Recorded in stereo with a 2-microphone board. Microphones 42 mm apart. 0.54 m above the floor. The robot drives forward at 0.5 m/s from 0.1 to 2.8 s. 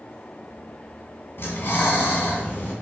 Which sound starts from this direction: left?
Breathing, at 1.4 s.